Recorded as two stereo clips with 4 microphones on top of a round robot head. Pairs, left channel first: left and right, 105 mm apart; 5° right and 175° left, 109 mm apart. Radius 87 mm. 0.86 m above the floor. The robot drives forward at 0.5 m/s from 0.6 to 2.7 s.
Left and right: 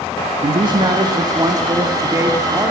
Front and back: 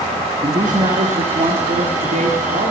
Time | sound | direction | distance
0.4 | a man speaking | 130° right | 1.0 m